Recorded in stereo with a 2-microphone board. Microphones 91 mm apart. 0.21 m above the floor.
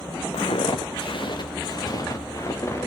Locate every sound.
0.3 s footsteps: 80° left, 2.5 m; by 2.9 s 30° left (ahead or behind), 3.5 m